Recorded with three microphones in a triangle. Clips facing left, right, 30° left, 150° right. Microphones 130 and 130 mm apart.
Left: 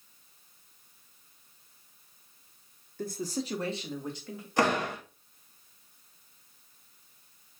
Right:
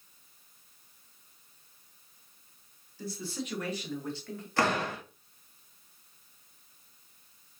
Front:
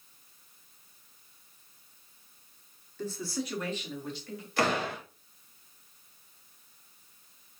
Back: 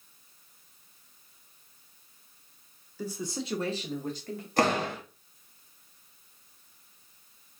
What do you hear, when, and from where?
3.0 s a man speaking: 130° left, 0.9 m; by 4.5 s 170° left, 1.7 m
4.6 s a door slam: 165° left, 1.4 m